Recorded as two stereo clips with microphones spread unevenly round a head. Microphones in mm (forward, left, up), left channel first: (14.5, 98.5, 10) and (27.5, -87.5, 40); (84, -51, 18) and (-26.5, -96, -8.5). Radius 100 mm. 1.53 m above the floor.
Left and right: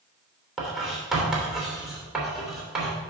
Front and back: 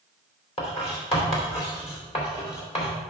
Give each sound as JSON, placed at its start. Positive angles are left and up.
{"t": 0.6, "sound": "writing", "azimuth_deg": 0, "distance_m": 3.0}